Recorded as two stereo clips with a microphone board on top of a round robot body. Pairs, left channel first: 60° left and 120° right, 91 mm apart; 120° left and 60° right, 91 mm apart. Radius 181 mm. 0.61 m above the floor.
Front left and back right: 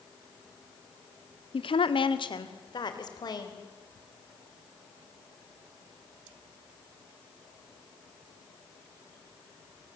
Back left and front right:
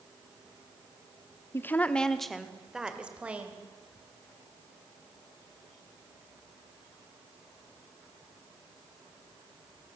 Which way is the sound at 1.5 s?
60° left.